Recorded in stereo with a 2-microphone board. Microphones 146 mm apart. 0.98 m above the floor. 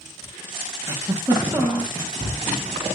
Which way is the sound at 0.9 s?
20° right (ahead or behind).